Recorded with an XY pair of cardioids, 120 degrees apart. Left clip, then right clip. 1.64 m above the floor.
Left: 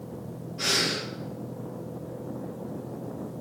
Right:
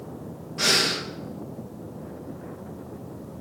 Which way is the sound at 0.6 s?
60° right.